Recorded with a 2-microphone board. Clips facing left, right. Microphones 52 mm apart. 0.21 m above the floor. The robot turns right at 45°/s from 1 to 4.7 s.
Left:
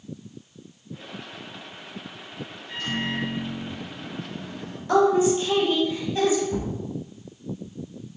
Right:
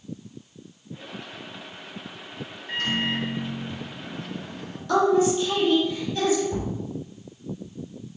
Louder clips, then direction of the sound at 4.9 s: Left 1 dB; 20° left (ahead or behind).